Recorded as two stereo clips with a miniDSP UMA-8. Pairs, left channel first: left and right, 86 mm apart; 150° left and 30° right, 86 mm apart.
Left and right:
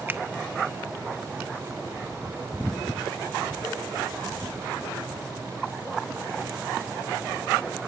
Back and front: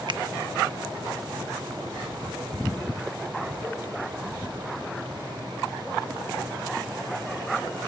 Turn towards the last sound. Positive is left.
turn(degrees=-25)